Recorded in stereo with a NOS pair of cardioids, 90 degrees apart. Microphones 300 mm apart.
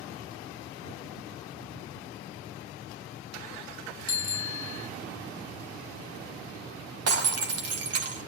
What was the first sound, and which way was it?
A bicycle bell, 30° left.